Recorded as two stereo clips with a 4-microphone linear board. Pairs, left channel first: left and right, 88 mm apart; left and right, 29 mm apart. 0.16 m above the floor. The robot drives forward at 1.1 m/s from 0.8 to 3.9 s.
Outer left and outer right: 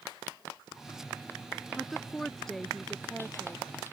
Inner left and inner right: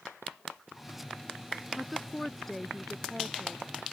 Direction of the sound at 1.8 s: 5° left (ahead or behind).